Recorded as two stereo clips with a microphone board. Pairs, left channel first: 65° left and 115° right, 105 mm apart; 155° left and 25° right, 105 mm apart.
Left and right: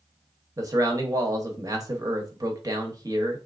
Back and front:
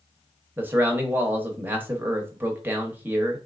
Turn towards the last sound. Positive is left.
turn(degrees=-85)